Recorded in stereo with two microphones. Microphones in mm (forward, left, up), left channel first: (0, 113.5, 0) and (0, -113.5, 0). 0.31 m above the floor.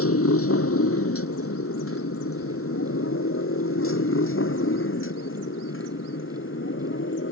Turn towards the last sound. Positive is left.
turn(degrees=60)  # may be behind; listen again after turning